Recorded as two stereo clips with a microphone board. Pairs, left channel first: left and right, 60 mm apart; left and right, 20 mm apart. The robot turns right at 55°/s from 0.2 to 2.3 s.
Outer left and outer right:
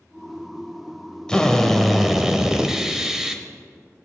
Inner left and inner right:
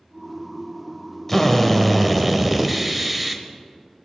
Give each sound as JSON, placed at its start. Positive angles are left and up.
{"t": 1.3, "sound": "a drill", "side_deg": 15, "distance_m": 1.0}